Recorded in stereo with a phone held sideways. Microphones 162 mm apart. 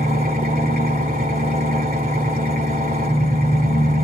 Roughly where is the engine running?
Right.